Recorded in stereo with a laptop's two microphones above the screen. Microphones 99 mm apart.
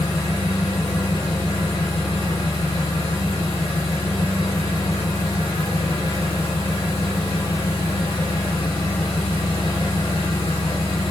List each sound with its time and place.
0.0 s an engine running: 75° left (ahead or behind), 1.0 m